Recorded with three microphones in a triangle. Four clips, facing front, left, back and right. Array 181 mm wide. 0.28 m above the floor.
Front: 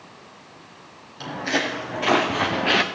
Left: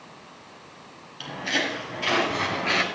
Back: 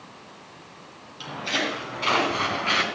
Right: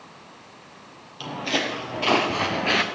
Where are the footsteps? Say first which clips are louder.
Right 2 dB, front 4 dB; 50° right, 4.5 m; by 2.8 s 30° right, 2.5 m.